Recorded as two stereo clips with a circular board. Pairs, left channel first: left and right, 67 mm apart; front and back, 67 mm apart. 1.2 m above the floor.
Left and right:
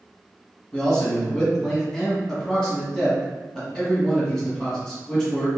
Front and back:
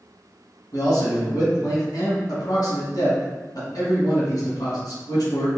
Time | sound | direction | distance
0.7 | a man speaking | 10° left | 1.4 m